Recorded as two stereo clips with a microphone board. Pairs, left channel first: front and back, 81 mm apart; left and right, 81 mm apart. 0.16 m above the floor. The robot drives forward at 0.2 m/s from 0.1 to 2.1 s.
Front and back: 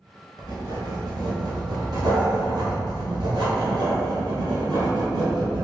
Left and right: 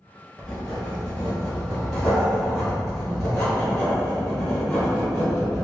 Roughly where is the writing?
Behind.